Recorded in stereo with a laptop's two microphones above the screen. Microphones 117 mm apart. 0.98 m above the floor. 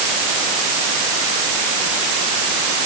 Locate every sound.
Only background noise.